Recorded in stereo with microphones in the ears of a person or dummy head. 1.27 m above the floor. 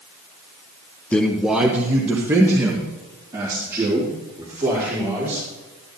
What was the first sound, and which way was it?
A man speaking, 5° left (ahead or behind).